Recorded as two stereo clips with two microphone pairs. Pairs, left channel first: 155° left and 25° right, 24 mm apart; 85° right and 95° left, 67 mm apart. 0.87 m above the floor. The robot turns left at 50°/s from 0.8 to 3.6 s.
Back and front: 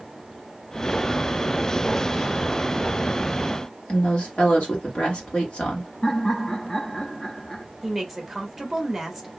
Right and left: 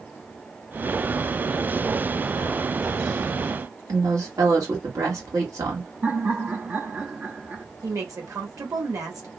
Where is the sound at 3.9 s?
120° left, 1.8 m.